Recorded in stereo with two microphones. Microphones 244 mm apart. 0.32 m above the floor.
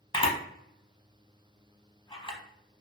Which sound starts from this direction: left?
A camera shutter, at 0.1 s.